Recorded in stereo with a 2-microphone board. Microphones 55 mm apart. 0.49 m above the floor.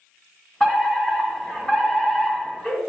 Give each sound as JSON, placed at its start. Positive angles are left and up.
{"t": 0.6, "sound": "a fire alarm", "side_deg": 20, "distance_m": 2.0}